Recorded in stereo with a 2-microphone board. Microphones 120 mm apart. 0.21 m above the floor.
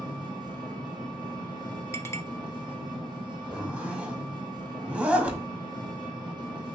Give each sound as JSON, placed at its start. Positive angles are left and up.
{"t": 0.0, "sound": "an engine running", "side_deg": -40, "distance_m": 1.8}
{"t": 1.9, "sound": "a clink", "side_deg": 20, "distance_m": 0.7}
{"t": 3.5, "sound": "a zipper", "side_deg": -10, "distance_m": 0.6}